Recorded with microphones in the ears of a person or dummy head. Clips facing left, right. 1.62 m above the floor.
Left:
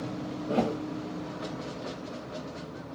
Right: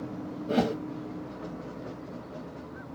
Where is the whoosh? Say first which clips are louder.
Right 1 dB; 25° right (ahead or behind), 1.0 m.